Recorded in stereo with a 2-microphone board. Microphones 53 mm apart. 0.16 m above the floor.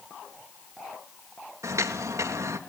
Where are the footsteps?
80° right, 2.5 m.